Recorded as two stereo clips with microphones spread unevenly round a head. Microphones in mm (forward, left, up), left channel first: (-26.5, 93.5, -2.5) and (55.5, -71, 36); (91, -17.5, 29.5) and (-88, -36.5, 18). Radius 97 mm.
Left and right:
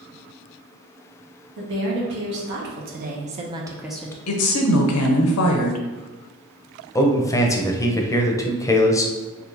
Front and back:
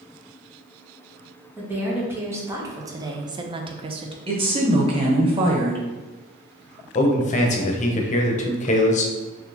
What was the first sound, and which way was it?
A woman speaking, 95° right.